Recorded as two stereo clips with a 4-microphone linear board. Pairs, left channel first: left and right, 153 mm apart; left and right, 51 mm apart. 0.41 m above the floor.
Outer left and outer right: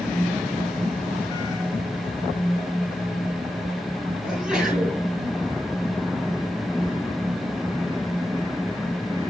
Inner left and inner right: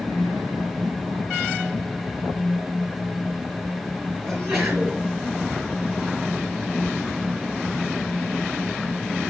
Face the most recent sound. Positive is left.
turn(degrees=-5)  # may be behind; listen again after turning